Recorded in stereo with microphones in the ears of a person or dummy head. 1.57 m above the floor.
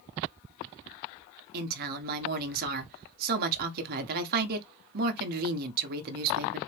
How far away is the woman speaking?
About 1.1 m.